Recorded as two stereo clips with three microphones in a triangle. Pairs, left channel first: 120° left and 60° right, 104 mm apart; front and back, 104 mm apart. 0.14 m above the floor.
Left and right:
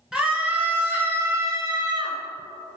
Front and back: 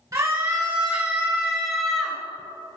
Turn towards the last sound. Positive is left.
turn(degrees=-90)